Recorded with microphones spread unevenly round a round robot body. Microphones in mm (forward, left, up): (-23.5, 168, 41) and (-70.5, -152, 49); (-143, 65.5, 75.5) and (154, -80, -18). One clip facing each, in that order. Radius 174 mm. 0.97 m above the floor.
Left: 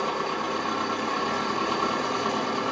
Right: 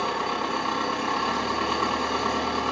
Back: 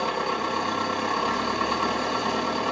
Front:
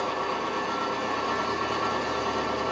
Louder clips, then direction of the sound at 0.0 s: Even, back 2 dB; 175° left.